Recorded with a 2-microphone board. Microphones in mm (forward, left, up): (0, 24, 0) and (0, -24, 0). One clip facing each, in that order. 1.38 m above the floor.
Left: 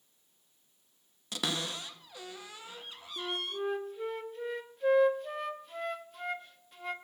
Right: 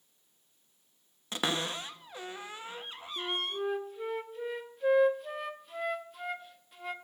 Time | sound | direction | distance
1.3 | a cupboard door | 30° right (ahead or behind) | 0.7 m
3.2 | a flute | centre (ahead or behind) | 0.8 m